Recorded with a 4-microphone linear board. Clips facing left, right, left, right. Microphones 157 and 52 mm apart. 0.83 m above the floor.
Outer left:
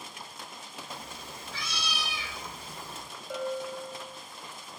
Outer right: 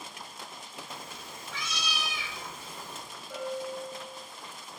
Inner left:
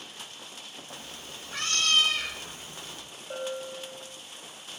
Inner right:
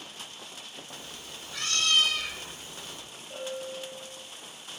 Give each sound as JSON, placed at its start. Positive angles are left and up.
{"t": 0.9, "sound": "a cat meowing", "side_deg": 35, "distance_m": 0.5}
{"t": 3.3, "sound": "a bell", "side_deg": 75, "distance_m": 0.5}